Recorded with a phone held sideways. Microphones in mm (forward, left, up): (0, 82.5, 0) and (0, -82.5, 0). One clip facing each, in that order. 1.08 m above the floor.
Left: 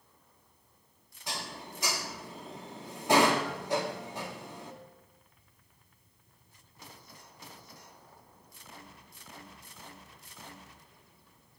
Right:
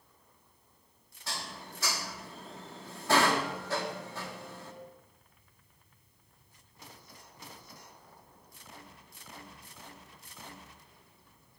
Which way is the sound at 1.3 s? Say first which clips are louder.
Left 2 dB; 15° left (ahead or behind).